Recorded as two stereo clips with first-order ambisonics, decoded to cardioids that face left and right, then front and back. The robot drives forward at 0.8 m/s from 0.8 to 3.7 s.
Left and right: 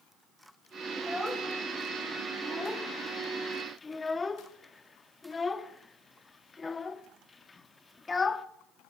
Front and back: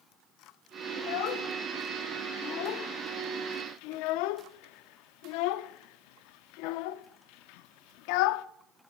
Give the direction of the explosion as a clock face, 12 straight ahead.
I don't hear an explosion.